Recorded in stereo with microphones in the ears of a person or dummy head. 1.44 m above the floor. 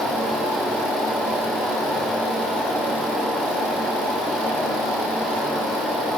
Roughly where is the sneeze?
I don't hear a sneeze.